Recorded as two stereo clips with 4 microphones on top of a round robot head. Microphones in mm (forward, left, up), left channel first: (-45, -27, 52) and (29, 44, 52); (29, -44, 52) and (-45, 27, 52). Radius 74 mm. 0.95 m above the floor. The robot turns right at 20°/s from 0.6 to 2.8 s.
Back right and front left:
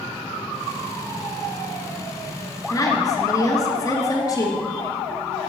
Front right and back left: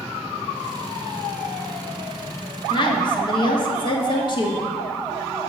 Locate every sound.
2.7 s a woman speaking: 85° right, 1.9 m; by 4.7 s 80° right, 1.9 m